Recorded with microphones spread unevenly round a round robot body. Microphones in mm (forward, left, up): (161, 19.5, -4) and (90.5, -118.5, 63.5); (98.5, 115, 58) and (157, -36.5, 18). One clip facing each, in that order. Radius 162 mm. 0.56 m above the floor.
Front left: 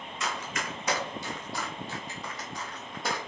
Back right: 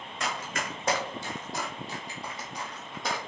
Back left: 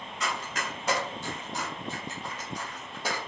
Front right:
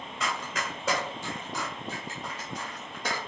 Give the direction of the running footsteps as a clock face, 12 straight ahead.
4 o'clock.